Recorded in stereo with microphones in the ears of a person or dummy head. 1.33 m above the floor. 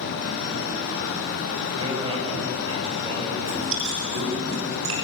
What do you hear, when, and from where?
1.8 s a man speaking: 35° right (ahead or behind), 6 m
3.4 s chewing: 75° right (ahead or behind), 7 m